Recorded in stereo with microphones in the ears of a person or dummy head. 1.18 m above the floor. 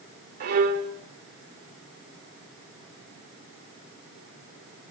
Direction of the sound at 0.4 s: 50° right (ahead or behind).